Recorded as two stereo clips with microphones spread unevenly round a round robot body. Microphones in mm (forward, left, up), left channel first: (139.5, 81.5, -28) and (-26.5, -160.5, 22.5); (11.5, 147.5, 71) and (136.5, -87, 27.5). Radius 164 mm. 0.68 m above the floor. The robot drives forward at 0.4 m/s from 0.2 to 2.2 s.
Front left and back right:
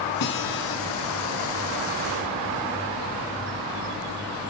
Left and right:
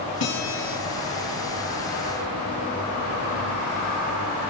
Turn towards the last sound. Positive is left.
turn(degrees=105)